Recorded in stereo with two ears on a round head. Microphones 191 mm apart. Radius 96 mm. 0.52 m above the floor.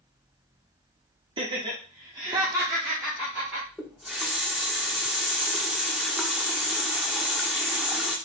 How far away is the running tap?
About 0.7 m.